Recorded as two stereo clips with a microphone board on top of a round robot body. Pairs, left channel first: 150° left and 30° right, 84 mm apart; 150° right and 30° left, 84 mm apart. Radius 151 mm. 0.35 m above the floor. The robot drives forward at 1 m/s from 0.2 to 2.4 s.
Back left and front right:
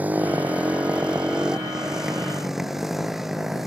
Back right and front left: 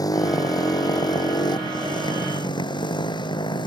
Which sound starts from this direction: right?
A motorcycle, at 0.0 s.